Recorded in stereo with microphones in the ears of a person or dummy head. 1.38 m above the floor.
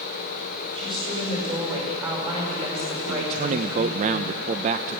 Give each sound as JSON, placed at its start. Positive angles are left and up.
{"t": 0.8, "sound": "a woman speaking", "side_deg": -25, "distance_m": 7.5}
{"t": 3.1, "sound": "a man speaking", "side_deg": -50, "distance_m": 0.6}